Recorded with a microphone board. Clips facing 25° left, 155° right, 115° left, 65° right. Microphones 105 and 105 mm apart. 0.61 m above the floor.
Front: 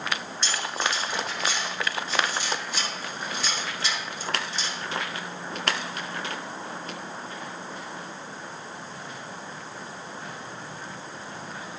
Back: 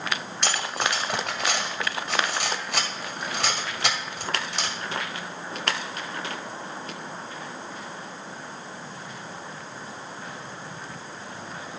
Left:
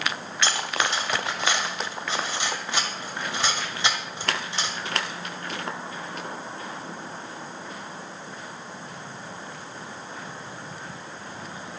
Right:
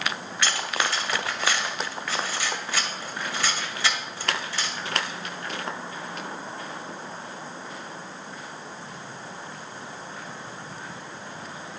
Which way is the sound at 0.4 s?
Straight behind.